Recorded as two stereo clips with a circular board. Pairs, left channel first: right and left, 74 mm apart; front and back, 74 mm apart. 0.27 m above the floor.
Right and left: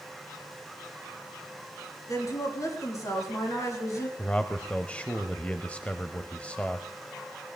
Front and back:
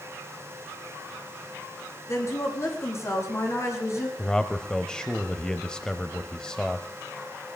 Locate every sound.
2.1 s a woman speaking: 45° right, 5.5 m
4.2 s a man speaking: 55° right, 0.9 m